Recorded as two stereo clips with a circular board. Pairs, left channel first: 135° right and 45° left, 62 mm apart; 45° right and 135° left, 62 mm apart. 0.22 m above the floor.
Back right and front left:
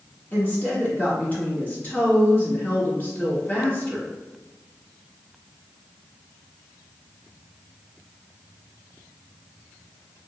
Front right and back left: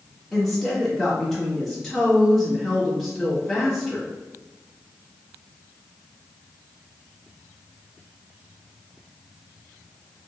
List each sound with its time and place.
0.3 s a woman speaking: 130° right, 1.1 m